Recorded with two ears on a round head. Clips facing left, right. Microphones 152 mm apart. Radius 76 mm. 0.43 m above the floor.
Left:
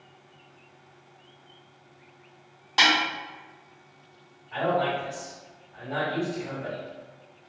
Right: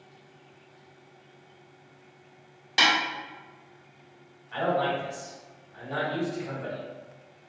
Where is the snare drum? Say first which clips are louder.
Left 1 dB; 20° right (ahead or behind), 1.2 m.